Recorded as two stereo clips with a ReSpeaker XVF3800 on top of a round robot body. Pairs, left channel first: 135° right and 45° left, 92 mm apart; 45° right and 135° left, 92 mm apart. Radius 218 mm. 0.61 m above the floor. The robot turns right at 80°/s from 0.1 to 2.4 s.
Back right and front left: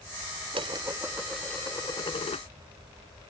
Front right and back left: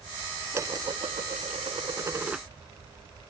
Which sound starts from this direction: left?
Dishes clattering, at 0.5 s.